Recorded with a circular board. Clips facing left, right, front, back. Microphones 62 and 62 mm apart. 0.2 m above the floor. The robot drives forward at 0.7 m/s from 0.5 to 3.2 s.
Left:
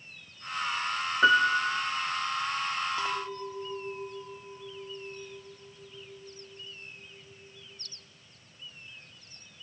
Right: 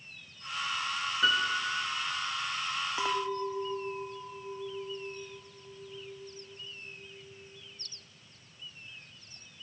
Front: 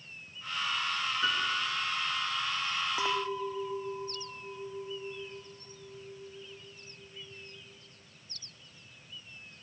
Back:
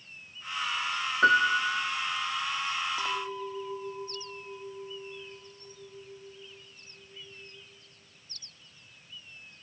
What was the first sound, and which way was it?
A piano, 145° left.